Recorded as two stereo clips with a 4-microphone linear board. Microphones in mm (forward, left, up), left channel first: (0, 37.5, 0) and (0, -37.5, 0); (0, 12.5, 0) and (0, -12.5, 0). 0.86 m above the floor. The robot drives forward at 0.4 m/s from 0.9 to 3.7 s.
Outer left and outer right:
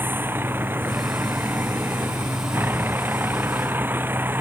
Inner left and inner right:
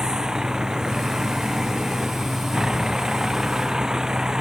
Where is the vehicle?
25° right (ahead or behind).